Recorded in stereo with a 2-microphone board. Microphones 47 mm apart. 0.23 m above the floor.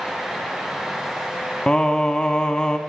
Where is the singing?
20° left (ahead or behind), 0.5 m.